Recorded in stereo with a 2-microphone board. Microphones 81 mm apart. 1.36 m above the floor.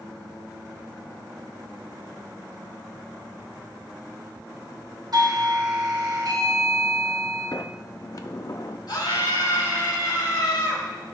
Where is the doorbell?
60° right (ahead or behind), 2.5 m.